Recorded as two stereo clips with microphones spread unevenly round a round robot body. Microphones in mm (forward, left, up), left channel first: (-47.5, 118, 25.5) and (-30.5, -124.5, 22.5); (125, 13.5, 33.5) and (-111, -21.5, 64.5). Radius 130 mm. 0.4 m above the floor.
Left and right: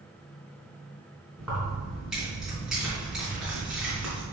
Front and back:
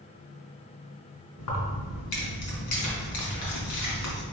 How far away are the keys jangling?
About 3.5 m.